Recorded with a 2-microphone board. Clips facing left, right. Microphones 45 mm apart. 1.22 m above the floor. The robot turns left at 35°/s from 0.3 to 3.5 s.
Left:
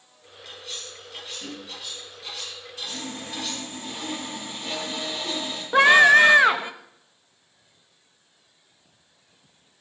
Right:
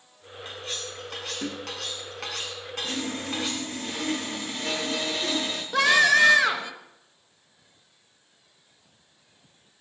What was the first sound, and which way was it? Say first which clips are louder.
Cutlery clinking: right 3 dB; 35° right.